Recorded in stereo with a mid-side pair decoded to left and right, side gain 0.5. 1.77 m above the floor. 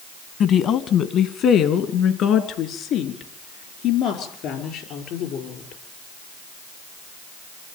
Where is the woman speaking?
60° left, 1.7 m; by 5.8 s 70° left, 7 m.